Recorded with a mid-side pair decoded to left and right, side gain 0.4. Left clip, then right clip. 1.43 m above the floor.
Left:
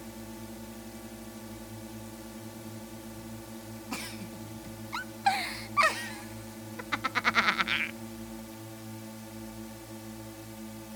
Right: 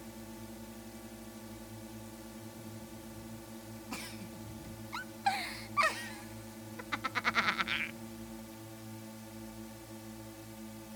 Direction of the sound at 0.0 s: 35° left.